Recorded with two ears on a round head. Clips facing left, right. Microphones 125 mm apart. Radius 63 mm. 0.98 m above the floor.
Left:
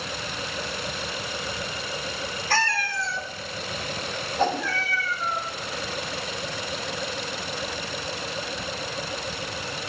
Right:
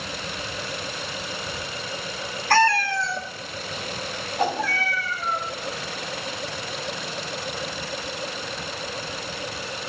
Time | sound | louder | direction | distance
2.5 | a cat meowing | right 8 dB | 45° right (ahead or behind) | 1.3 m
4.4 | a whoosh | even | 10° right (ahead or behind) | 6 m